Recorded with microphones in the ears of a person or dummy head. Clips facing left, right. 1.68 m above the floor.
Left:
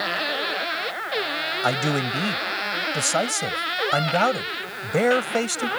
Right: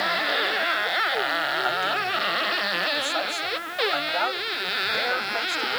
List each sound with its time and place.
1.6 s a man speaking: 55° left (ahead or behind)